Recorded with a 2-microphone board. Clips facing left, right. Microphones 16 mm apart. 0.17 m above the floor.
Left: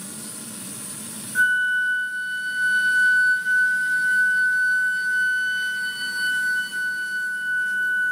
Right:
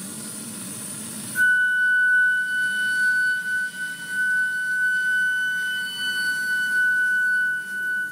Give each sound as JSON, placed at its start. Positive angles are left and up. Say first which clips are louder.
{"t": 1.4, "sound": "a flute", "louder": "right 1 dB", "side_deg": 35, "distance_m": 0.5}